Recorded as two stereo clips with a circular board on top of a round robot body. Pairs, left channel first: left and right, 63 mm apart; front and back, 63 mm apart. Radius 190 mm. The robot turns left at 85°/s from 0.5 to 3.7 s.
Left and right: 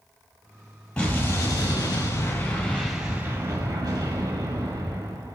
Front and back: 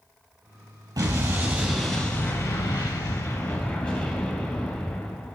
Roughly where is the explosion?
Behind.